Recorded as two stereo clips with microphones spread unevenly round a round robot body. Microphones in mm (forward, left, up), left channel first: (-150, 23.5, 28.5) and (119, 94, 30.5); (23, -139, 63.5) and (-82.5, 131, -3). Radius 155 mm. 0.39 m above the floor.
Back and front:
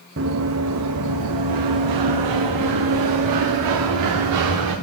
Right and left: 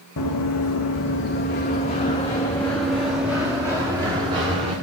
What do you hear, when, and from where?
0.2 s running footsteps: 40° right, 1.9 m; by 4.8 s 35° left, 3.5 m